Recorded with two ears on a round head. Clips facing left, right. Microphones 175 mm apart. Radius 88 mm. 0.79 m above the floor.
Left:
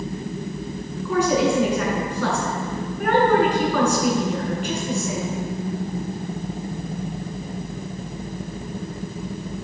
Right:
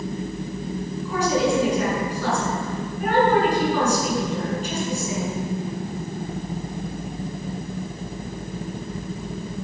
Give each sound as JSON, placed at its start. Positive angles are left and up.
{"t": 1.1, "sound": "a woman speaking", "side_deg": 55, "distance_m": 7.0}